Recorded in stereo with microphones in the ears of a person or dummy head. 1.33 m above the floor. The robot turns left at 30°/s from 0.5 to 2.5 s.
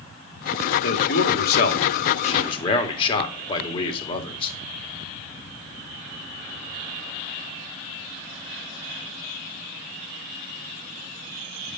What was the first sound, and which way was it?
A man speaking, 80° left.